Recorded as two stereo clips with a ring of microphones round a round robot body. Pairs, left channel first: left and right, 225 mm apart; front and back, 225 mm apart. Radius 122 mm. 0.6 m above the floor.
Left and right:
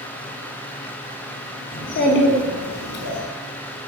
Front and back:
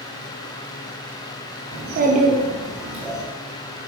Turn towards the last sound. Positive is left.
turn(degrees=90)